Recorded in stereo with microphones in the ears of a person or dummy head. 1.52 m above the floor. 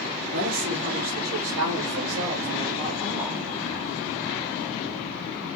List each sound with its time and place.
0.3 s a woman speaking: 70° right (ahead or behind), 1.3 m; by 3.4 s centre (ahead or behind), 0.8 m